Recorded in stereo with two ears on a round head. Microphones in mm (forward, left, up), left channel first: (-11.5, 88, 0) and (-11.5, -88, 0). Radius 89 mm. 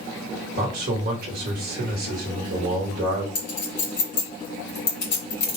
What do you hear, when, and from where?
0.6 s a man speaking: 50° right (ahead or behind), 1.6 m
3.4 s a clink: 30° left (ahead or behind), 2.5 m